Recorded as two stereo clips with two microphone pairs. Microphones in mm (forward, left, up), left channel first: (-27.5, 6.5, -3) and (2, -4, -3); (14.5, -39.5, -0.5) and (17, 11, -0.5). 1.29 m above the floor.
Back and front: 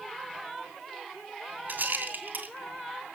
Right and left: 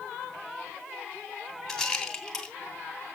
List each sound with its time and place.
1.7 s a rattle: 10° right, 2.5 m